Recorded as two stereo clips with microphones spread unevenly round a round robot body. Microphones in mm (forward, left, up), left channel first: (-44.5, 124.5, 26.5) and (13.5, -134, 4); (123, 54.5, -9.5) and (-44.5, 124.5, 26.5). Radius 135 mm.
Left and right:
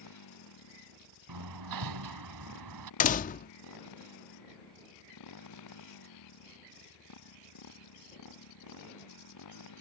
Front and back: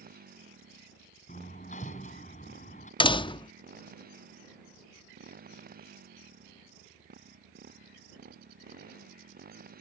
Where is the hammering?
90° right.